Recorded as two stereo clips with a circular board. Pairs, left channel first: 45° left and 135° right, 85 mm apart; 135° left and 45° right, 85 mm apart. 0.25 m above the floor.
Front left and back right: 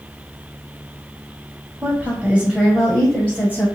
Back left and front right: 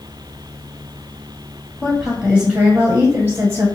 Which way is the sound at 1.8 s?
130° right.